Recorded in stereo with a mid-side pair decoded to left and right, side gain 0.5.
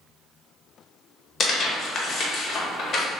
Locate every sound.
1.4 s tearing paper: 45° left, 1.2 m